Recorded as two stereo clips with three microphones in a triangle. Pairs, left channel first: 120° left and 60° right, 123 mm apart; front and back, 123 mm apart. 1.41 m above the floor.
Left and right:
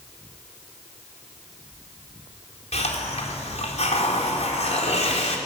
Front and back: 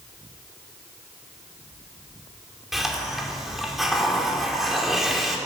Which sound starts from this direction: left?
A hiss, at 2.7 s.